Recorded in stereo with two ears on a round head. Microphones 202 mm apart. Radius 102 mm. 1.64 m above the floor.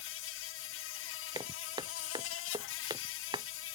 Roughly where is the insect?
Left.